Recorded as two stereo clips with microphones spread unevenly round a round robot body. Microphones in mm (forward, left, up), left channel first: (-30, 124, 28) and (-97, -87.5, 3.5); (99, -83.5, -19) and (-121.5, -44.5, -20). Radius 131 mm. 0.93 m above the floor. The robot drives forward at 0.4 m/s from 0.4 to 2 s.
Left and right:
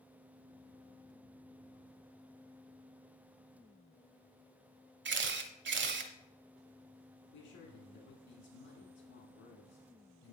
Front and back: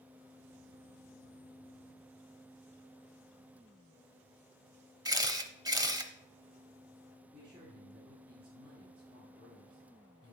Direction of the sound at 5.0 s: 125° right.